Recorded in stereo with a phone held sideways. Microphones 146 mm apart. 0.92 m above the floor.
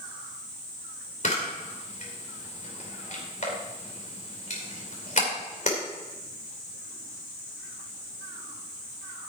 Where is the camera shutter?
60° left (ahead or behind), 3 m.